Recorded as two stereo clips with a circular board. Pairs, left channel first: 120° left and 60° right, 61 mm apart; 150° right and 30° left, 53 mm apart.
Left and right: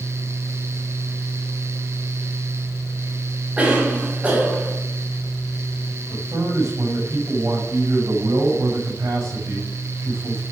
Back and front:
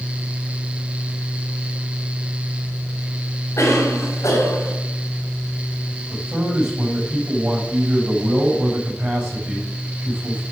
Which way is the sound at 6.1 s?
20° right.